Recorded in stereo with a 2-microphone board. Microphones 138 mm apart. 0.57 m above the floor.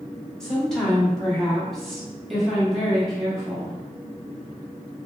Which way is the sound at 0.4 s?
5° left (ahead or behind).